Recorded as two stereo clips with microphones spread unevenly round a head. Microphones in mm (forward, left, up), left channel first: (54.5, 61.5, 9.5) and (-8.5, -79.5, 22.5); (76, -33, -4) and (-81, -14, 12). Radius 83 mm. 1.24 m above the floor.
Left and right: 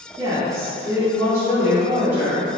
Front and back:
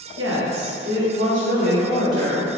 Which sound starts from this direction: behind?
A woman speaking, at 0.2 s.